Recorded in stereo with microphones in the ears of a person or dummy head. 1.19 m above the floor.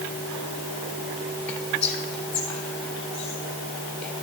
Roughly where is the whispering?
Centre.